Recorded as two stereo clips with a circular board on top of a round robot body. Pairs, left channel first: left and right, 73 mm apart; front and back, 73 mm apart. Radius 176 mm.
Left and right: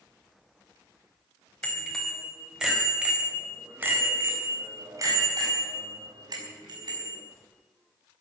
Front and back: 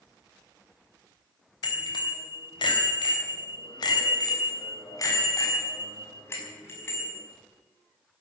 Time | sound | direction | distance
1.6 | a bicycle bell | 10° left | 4 m